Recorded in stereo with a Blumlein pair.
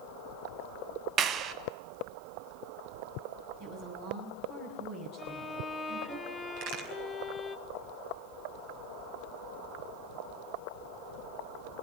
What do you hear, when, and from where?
1.2 s a clap: 30° right, 1.1 m
3.6 s a woman speaking: 40° right, 8.5 m
5.2 s a violin: 10° left, 1.2 m
6.6 s a crack: 40° right, 5 m